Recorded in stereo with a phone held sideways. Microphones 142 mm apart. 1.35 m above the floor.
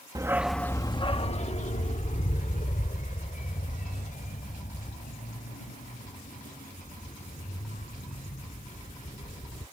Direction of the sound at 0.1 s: 25° right (ahead or behind).